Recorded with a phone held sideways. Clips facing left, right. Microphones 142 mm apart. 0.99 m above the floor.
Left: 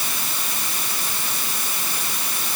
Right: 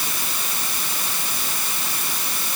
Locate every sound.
Only background noise.